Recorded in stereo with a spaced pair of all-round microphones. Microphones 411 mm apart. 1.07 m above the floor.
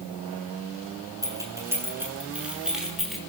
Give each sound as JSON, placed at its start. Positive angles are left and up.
{"t": 1.2, "sound": "keys jangling", "side_deg": -5, "distance_m": 9.0}